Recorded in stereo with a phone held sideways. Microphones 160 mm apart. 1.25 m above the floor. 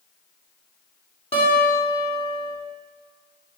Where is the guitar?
35° left (ahead or behind), 2.5 m.